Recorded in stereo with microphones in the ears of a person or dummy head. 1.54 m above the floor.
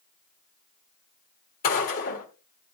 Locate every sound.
1.6 s a gunshot: 45° left (ahead or behind), 1.6 m